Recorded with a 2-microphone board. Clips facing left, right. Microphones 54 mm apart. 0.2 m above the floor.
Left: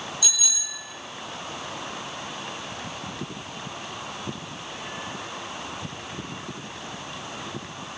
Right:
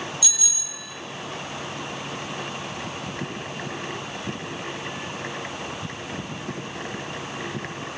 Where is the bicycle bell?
40° left (ahead or behind), 5 m.